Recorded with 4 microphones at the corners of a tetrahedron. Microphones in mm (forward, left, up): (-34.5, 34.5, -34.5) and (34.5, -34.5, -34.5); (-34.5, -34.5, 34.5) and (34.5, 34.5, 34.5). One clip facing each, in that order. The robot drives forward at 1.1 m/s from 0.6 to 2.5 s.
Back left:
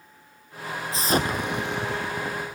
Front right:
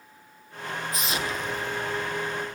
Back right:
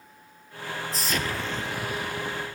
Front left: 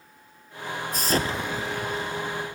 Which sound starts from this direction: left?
An explosion, at 0.9 s.